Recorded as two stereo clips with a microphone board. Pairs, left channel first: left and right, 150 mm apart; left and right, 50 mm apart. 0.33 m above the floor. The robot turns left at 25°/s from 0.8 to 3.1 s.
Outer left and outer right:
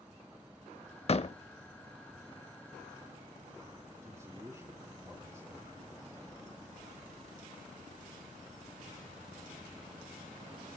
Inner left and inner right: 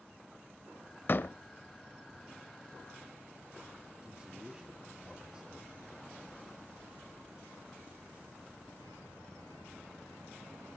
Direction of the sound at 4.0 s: 20° right (ahead or behind).